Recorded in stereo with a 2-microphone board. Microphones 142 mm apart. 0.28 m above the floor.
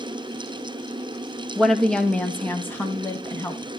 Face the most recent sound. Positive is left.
turn(degrees=20)  # may be behind; listen again after turning